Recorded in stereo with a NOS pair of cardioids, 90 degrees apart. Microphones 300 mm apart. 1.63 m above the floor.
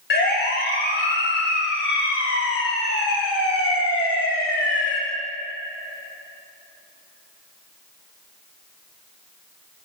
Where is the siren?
40° left, 7 m; by 5.0 s 60° left, 5.5 m.